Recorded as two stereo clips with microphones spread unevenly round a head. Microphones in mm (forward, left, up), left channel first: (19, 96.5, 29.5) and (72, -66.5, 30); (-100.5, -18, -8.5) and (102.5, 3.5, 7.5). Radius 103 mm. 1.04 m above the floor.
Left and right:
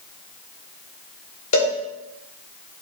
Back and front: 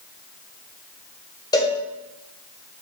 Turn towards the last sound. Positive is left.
turn(degrees=115)